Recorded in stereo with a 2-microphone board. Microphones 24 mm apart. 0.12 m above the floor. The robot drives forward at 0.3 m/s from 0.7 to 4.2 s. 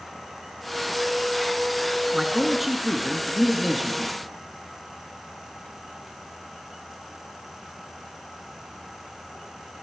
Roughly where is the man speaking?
Centre.